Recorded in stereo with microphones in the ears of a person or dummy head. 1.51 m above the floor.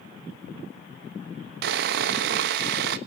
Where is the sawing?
60° right (ahead or behind), 1.1 m.